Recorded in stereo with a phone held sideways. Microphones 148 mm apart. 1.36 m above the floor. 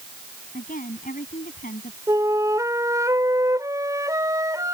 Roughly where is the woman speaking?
Left.